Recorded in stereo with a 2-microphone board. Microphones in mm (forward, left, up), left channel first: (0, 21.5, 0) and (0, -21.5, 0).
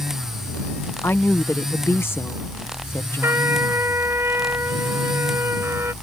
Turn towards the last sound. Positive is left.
turn(degrees=-75)  # may be behind; listen again after turning